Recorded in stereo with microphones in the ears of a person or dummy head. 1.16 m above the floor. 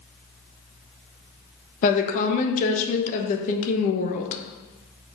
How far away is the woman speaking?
About 1.0 m.